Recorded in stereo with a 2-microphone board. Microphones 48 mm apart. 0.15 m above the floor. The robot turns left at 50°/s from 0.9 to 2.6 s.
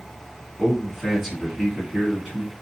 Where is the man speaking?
10° left (ahead or behind), 1.2 m; by 2.5 s 15° right (ahead or behind), 1.2 m.